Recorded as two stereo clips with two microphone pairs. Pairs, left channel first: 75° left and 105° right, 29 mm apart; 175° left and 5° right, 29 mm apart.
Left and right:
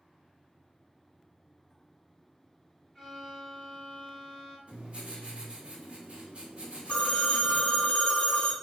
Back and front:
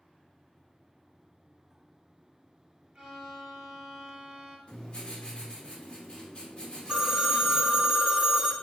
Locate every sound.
3.0 s a violin: 15° right, 1.3 m
4.7 s writing: 145° right, 0.7 m
6.9 s a phone ringing: 50° left, 0.6 m